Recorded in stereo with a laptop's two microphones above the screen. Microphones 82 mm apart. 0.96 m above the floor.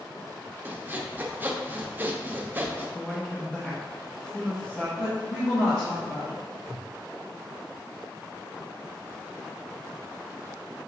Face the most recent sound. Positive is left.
turn(degrees=40)  # may be behind; listen again after turning